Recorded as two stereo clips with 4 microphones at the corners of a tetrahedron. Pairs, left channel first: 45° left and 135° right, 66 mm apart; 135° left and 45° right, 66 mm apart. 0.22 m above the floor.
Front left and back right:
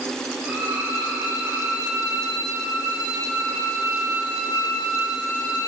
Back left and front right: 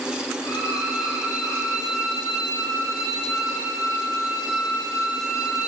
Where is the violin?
155° left, 3 m.